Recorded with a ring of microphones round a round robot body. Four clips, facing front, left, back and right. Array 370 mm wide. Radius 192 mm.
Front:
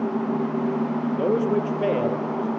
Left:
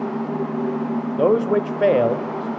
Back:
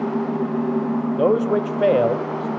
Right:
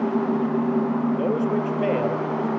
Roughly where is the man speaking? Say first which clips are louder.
Left 5 dB, back 4 dB; behind left.